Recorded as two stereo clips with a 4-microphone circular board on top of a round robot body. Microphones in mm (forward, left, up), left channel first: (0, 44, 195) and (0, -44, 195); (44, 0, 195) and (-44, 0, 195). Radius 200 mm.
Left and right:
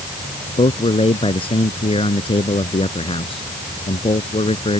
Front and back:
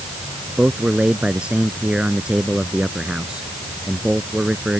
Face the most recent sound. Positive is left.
turn(degrees=100)